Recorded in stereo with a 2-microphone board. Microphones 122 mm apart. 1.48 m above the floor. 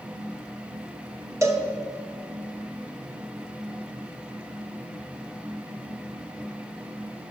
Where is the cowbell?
25° right (ahead or behind), 1.1 m.